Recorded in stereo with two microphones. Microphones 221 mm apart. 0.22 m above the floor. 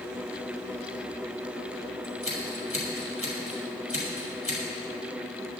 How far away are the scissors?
About 5 m.